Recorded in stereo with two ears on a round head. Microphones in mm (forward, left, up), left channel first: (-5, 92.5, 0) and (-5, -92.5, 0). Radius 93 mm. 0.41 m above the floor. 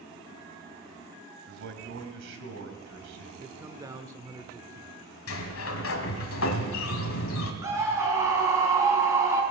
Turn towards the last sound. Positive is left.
turn(degrees=-15)  # may be behind; listen again after turning